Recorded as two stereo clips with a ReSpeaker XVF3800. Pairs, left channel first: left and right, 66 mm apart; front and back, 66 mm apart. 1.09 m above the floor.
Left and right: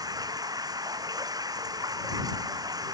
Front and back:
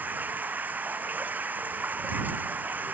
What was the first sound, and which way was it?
Running water, 115° right.